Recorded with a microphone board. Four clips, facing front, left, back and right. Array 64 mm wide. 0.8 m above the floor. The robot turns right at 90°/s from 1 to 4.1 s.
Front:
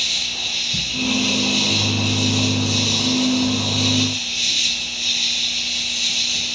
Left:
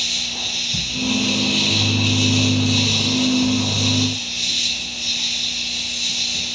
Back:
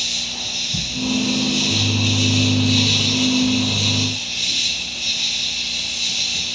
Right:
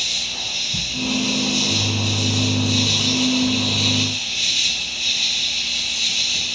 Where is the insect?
25° left, 2 m; by 6.6 s 55° right, 2 m.